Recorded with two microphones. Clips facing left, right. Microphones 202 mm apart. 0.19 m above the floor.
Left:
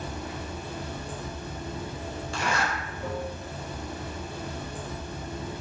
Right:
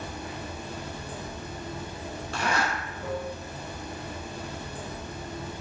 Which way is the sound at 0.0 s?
15° right (ahead or behind).